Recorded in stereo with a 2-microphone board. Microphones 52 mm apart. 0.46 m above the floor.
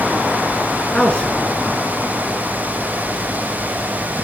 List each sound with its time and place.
0.9 s a man speaking: 20° left (ahead or behind), 5.5 m